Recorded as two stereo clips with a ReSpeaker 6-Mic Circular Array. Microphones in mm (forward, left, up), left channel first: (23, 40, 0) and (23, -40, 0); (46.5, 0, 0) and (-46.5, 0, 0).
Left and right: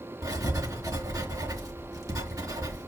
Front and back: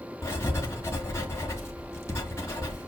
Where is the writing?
55° right, 3 m.